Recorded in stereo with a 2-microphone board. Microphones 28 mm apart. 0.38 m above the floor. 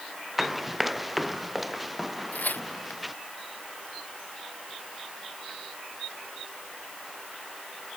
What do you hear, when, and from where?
0.4 s running footsteps: 5° right (ahead or behind)
2.3 s tearing paper: 80° left